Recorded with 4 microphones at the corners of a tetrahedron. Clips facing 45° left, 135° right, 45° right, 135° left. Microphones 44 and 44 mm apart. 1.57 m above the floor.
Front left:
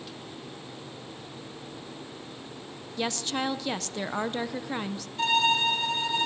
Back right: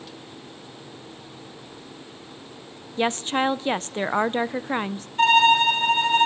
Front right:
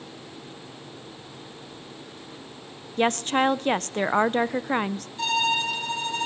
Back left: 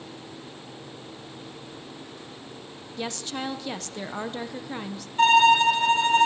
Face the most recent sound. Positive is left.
turn(degrees=175)